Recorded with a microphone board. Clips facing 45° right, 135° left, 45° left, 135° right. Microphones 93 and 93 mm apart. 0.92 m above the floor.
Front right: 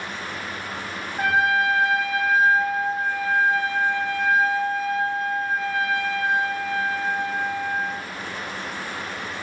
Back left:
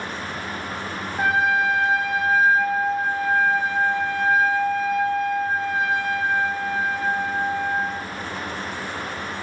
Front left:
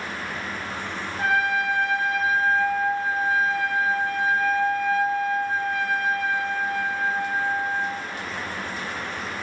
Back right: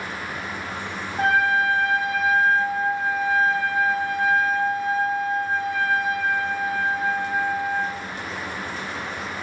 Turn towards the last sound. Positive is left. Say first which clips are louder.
# even, back right 3 dB
turn(degrees=-130)